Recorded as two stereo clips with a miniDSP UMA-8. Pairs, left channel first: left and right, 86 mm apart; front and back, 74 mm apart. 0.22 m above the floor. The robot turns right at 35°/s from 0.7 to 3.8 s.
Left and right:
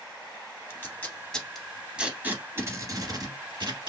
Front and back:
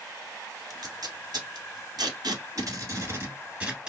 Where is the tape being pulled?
145° left, 1.3 m; by 3.9 s 105° right, 1.3 m.